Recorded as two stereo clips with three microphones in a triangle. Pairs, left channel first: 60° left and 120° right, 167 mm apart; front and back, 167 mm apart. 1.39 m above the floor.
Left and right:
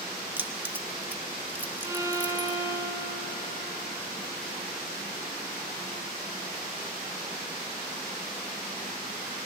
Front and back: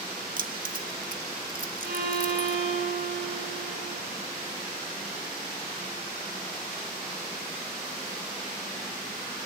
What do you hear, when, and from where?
0.4 s keys jangling: 165° left, 1.3 m
1.8 s a violin: 175° left, 4 m